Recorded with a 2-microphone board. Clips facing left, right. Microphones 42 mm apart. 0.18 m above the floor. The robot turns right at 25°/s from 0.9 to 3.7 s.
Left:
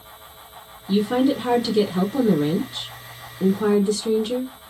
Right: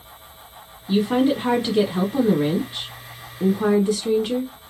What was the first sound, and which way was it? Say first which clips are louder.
A woman speaking: even; 20° right (ahead or behind).